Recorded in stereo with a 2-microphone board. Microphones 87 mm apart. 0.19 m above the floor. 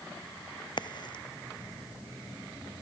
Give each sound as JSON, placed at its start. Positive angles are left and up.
{"t": 0.8, "sound": "a crack", "side_deg": 60}